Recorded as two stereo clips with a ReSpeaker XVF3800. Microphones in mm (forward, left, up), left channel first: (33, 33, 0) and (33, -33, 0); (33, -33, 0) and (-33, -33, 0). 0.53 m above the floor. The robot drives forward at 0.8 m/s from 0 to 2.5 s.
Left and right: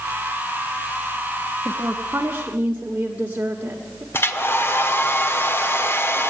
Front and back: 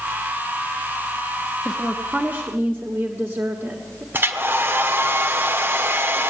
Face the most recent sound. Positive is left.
turn(degrees=130)